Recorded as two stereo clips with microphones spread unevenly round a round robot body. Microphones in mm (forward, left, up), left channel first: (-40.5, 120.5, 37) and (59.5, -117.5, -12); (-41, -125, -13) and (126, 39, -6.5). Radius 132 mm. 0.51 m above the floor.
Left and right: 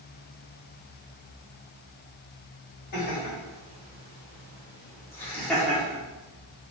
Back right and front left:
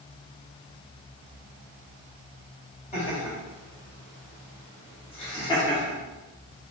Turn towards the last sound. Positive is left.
turn(degrees=-100)